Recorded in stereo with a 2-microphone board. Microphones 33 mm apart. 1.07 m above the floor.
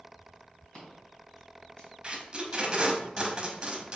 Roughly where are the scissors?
Left.